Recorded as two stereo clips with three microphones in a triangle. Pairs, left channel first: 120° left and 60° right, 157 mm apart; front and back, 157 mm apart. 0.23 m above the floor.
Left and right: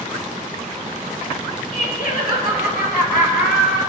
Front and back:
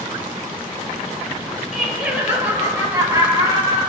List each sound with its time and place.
1.7 s laughter: 90° left, 3.5 m; by 3.8 s 120° left, 4 m